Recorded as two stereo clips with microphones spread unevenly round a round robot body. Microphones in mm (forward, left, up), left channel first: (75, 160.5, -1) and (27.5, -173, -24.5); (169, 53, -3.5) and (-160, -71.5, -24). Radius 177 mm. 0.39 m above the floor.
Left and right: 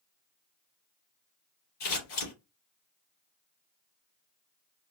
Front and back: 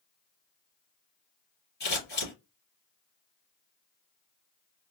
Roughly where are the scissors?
Left.